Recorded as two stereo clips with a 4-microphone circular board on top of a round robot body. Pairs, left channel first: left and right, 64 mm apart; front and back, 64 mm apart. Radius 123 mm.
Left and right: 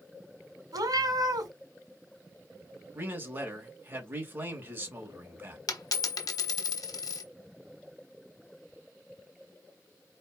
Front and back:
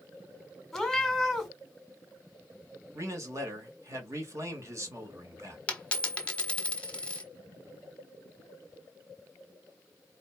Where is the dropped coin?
70° left, 1.3 m.